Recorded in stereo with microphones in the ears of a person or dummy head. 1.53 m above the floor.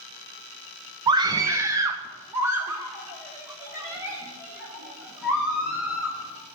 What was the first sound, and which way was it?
A scream, 20° right (ahead or behind).